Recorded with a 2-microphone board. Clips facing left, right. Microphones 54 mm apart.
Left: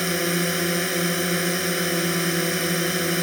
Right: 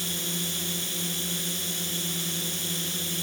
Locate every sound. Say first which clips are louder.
0.0 s a drone: left 11 dB; 60° left (ahead or behind)